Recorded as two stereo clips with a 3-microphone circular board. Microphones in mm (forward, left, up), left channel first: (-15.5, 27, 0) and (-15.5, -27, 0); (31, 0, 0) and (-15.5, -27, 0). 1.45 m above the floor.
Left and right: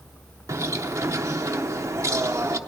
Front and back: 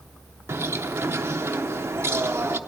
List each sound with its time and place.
0.5 s a bird: 110° right, 0.8 m